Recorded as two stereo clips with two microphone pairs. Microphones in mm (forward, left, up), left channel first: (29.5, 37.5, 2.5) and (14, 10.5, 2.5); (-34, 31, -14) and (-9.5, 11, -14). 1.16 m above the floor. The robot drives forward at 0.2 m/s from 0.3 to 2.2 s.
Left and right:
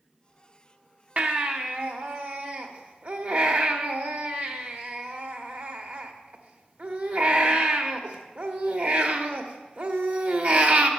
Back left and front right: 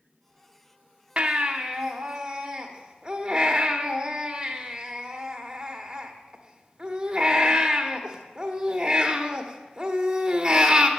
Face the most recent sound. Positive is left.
turn(degrees=-105)